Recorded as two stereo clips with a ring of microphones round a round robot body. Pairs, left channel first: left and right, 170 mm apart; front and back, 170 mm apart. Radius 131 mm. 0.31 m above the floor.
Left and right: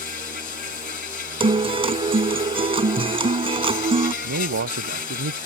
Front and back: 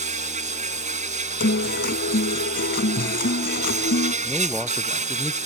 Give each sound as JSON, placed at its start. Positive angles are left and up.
{"t": 0.0, "sound": "an insect", "azimuth_deg": 140}
{"t": 1.4, "sound": "a guitar", "azimuth_deg": -35}
{"t": 4.2, "sound": "a man speaking", "azimuth_deg": -90}